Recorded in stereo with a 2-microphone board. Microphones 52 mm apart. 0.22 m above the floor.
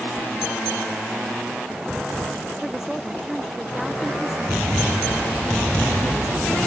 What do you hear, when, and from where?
2.6 s a woman speaking: 5° right (ahead or behind)